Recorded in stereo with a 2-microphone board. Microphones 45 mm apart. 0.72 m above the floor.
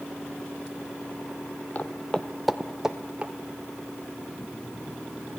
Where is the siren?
I don't hear a siren.